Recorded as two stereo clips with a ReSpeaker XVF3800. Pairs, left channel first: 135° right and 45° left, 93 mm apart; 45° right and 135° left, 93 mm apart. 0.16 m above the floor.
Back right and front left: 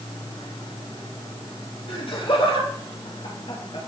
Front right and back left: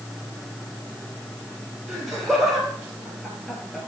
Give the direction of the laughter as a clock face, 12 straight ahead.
5 o'clock.